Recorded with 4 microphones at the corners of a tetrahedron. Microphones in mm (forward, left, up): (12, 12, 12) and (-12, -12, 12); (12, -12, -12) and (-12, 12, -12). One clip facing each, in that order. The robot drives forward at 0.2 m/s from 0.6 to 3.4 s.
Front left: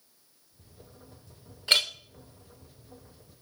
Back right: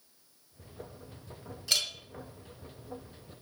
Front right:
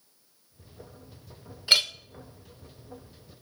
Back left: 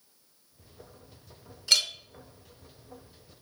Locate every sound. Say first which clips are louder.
1.7 s a clink: front left 6 dB, front right 3 dB; 10° left, 0.6 m; by 1.9 s 15° left, 0.5 m